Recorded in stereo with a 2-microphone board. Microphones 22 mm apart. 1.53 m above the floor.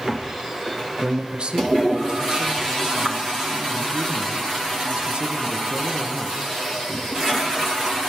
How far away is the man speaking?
About 1.0 m.